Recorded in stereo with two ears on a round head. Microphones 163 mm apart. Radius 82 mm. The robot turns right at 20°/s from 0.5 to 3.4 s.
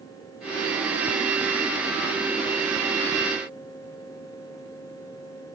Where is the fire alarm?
I don't hear a fire alarm.